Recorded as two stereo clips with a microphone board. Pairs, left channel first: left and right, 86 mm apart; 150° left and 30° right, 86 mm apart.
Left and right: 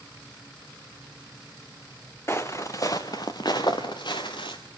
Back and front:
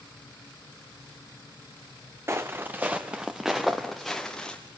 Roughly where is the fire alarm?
I don't hear a fire alarm.